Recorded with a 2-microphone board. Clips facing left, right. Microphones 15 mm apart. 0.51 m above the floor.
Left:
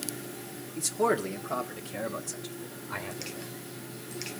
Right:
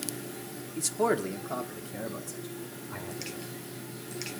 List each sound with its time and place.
0.8 s a man speaking: 20° right (ahead or behind), 1.3 m; by 3.5 s 40° left (ahead or behind), 2.5 m